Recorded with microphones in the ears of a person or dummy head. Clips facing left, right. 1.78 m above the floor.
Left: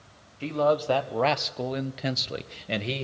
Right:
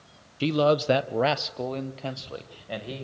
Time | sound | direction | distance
0.4 | a man speaking | 50° right (ahead or behind) | 1.2 m